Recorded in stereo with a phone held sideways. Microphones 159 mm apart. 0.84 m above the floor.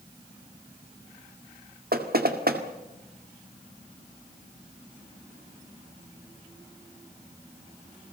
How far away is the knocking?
About 2 m.